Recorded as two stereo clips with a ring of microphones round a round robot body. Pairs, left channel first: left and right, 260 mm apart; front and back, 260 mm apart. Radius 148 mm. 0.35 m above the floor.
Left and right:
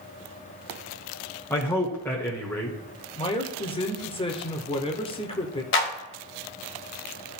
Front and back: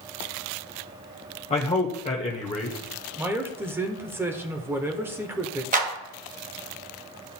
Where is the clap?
125° left, 1.5 m.